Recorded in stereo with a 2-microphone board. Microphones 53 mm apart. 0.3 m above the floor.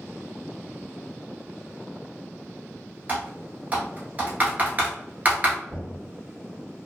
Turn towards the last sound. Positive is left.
turn(degrees=30)  # may be behind; listen again after turning